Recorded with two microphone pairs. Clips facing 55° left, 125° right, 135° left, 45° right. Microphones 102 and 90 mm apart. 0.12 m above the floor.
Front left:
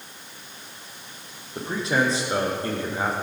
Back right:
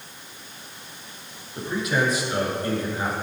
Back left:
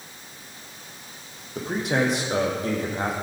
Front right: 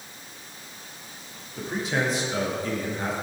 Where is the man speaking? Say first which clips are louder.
Front left 1 dB, back left 3 dB; 115° left, 5 m.